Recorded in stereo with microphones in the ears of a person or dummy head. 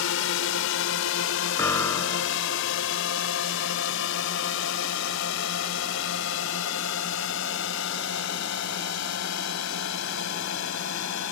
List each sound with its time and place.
0.0 s a drone: 70° left (ahead or behind)
1.6 s a piano: 15° left (ahead or behind)